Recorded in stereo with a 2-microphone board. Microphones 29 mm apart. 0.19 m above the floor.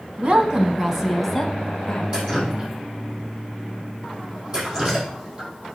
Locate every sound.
0.2 s a woman speaking: 40° right (ahead or behind), 1.2 m; by 2.0 s 20° left (ahead or behind), 1.8 m
2.1 s dripping: 35° right (ahead or behind), 4.5 m